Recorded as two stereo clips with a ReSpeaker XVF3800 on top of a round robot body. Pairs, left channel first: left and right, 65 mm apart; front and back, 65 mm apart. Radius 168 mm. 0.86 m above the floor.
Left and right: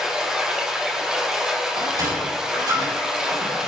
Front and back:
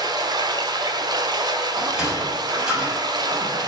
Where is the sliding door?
100° right, 6.5 m.